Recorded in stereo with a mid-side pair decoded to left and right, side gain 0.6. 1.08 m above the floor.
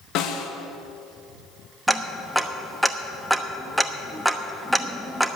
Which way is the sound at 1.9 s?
5° right.